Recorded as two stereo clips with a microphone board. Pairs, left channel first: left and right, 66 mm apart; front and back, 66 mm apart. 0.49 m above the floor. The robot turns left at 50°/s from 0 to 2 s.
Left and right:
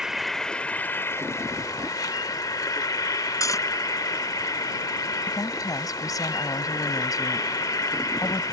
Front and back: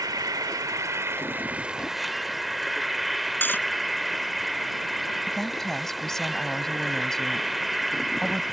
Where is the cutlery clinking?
60° left.